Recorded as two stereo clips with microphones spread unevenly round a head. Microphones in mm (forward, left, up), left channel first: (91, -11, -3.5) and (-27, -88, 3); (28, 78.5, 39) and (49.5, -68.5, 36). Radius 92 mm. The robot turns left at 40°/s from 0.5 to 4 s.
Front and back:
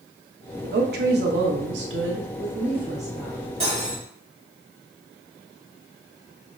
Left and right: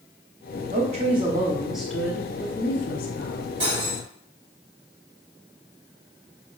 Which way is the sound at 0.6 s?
125° right.